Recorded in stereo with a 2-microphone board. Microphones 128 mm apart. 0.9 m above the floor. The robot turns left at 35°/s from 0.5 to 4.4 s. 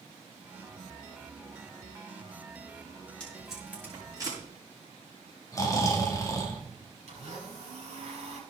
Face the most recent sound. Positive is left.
turn(degrees=-55)  # may be behind; listen again after turning